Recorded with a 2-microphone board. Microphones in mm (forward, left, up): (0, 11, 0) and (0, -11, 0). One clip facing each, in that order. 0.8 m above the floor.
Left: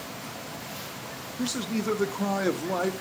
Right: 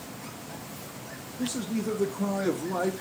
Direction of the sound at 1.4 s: 50° left (ahead or behind).